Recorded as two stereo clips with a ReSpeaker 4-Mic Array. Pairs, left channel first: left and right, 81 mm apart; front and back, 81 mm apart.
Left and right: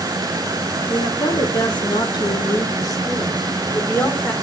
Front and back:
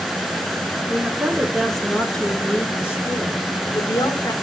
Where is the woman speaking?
105° left, 2.5 m; by 4.3 s 25° left, 2.5 m.